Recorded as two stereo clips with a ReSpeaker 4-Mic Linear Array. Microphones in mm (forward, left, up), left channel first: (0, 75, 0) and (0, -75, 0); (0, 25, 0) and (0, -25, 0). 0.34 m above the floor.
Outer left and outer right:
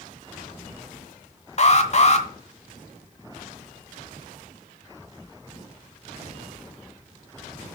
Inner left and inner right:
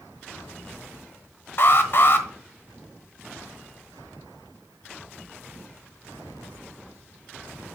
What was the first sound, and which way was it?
An alarm, 50° left (ahead or behind).